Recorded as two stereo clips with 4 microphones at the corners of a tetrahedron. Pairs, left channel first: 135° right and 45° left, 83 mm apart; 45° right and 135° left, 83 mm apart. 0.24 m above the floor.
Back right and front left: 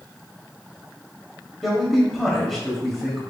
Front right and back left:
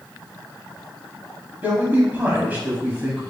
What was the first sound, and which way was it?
A man speaking, 135° left.